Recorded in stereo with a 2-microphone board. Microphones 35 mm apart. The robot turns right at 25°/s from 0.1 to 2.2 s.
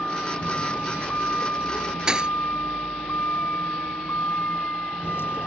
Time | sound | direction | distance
0.0 | a vehicle | 35° left | ?
2.1 | a thud | 20° right (ahead or behind) | ?